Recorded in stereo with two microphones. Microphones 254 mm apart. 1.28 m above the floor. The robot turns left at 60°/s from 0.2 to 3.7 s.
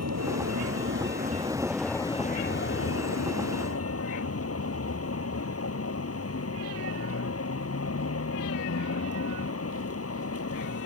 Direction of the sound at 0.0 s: 85° right.